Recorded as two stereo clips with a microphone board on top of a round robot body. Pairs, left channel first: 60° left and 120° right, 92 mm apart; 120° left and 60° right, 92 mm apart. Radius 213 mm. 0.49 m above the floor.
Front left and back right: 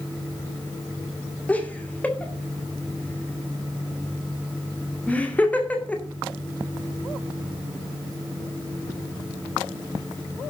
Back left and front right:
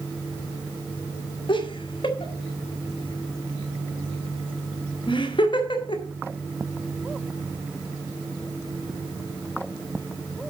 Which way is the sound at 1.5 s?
130° left.